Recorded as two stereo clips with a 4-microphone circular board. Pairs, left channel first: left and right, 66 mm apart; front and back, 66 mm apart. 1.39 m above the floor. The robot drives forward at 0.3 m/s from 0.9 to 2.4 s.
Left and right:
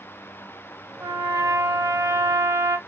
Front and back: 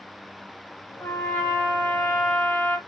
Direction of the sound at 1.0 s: 50° right.